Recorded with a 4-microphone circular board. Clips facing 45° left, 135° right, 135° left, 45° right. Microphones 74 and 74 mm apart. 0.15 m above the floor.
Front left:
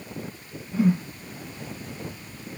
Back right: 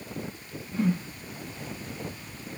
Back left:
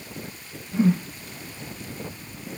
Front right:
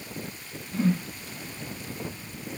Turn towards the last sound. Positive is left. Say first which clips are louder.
# front left 5 dB, back left 4 dB
turn(degrees=100)